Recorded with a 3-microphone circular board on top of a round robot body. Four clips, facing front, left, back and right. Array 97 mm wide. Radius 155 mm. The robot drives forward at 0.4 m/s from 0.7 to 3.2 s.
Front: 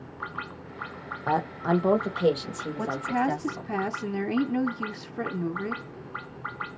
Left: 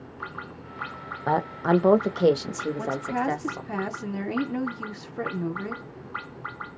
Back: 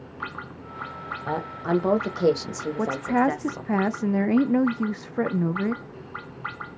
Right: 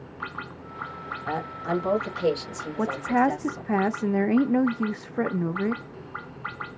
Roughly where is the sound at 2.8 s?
Behind right.